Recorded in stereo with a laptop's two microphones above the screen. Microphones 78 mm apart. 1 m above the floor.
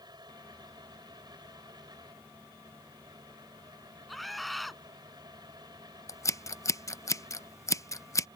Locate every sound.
0.0 s a fan: 80° right
4.1 s a scream: centre (ahead or behind)
6.1 s scissors: 45° left (ahead or behind)